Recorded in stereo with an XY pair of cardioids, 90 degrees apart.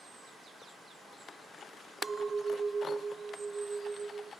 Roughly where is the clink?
Ahead right.